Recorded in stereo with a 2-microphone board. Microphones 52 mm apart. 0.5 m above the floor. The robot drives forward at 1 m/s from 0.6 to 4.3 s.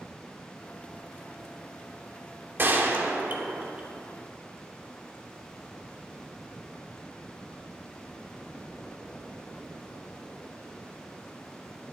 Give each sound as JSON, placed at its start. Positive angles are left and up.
{"t": 2.6, "sound": "a gunshot", "side_deg": -40, "distance_m": 1.1}